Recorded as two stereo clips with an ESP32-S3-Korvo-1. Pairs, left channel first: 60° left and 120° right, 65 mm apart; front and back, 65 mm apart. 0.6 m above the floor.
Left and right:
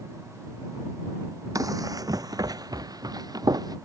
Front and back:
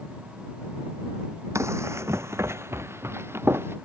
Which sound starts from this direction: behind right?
Running footsteps, at 1.6 s.